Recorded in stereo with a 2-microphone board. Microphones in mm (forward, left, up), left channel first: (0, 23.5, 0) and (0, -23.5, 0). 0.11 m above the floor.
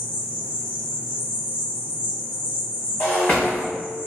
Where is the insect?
35° right (ahead or behind), 1.7 m.